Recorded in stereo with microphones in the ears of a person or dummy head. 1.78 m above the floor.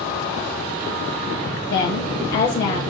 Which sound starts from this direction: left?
A woman speaking, at 1.7 s.